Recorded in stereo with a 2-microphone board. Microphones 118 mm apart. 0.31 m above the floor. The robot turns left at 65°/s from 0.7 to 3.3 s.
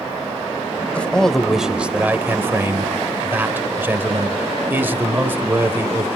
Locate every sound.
0.9 s a man speaking: 10° left (ahead or behind), 0.9 m; by 6.1 s 15° right (ahead or behind), 0.9 m